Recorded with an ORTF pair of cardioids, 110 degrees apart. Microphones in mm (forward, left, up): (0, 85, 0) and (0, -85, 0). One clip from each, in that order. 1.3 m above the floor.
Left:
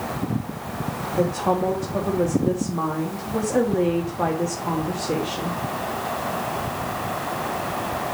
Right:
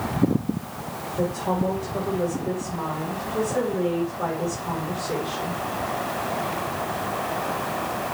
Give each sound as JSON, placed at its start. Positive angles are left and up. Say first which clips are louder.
{"t": 1.2, "sound": "a woman speaking", "louder": "left 4 dB", "azimuth_deg": 55, "distance_m": 2.0}